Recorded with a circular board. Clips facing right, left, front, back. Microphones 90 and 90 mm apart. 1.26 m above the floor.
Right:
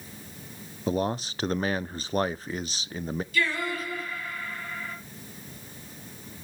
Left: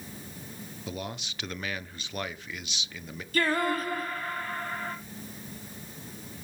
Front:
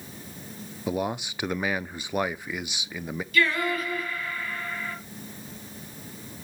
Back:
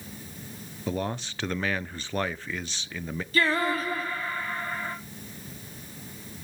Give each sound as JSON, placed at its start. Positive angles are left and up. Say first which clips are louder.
{"t": 0.9, "sound": "a man speaking", "louder": "right 11 dB, front 2 dB", "azimuth_deg": -70, "distance_m": 0.6}
{"t": 3.3, "sound": "singing", "louder": "left 4 dB, even", "azimuth_deg": 130, "distance_m": 2.0}